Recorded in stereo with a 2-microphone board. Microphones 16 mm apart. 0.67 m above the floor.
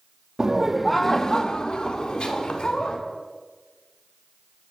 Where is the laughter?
40° right (ahead or behind), 0.7 m; by 3.0 s 75° left (ahead or behind), 2 m.